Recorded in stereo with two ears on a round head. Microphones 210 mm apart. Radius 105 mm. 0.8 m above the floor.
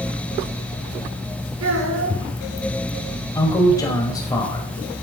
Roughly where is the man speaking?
Centre.